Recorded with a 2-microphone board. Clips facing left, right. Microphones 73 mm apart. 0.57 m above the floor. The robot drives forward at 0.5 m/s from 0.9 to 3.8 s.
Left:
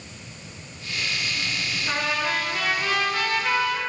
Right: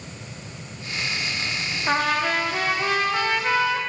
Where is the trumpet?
50° right (ahead or behind), 0.6 m; by 3.8 s 20° right (ahead or behind), 1.3 m.